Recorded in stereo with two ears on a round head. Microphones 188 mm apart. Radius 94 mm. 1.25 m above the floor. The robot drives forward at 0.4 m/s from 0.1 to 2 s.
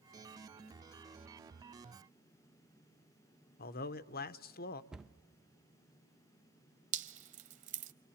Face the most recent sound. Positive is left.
turn(degrees=-35)  # may be behind; listen again after turning